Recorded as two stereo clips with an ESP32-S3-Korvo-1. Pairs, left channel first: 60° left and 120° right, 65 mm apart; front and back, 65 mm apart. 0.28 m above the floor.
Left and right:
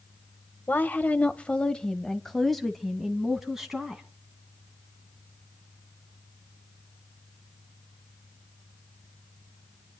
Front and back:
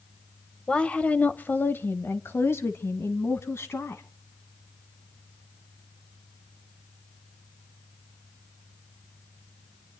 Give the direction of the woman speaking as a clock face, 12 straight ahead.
10 o'clock.